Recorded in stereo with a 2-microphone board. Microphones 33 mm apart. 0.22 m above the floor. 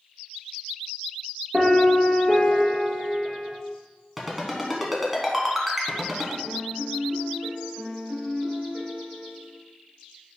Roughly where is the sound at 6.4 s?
Right.